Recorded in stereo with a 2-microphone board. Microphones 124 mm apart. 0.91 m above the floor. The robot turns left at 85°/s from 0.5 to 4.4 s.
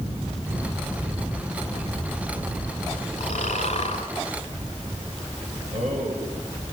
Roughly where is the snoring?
Behind left.